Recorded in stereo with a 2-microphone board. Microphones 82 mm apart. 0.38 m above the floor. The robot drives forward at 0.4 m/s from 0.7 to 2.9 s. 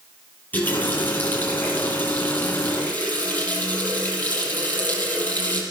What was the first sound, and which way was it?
A running tap, 20° left (ahead or behind).